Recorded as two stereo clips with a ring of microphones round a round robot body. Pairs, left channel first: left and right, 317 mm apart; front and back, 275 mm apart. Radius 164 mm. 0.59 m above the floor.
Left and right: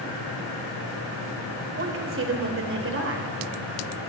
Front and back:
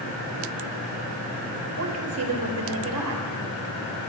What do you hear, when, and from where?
1.8 s a woman speaking: 140° right, 2 m